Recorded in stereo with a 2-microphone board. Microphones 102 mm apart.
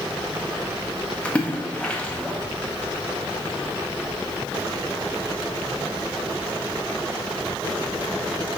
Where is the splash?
15° left (ahead or behind), 1.4 m.